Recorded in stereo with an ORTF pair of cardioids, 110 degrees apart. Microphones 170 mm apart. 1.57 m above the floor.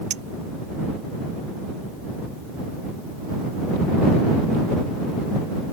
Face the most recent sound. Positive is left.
turn(degrees=-50)